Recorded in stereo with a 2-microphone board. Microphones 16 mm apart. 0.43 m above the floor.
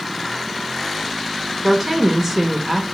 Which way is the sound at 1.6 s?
25° right (ahead or behind).